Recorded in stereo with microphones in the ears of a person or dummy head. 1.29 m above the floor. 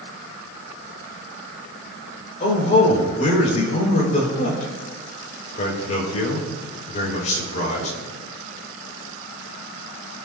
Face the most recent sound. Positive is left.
turn(degrees=45)  # may be behind; listen again after turning